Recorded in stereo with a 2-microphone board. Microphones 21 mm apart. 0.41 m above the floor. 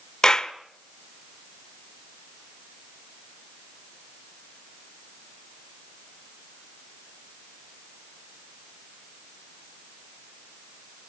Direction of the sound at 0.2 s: 30° left (ahead or behind).